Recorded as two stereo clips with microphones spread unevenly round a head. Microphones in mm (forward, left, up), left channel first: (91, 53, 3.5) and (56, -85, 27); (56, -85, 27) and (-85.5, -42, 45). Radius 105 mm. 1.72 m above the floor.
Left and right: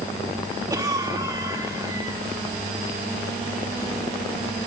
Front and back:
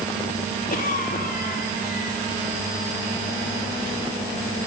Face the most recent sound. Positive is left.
turn(degrees=-40)